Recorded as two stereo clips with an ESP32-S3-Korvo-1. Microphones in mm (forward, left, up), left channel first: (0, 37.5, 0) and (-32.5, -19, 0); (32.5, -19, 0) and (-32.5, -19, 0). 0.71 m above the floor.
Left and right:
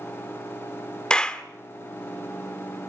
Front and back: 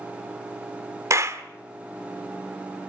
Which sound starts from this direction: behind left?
A clap, at 1.1 s.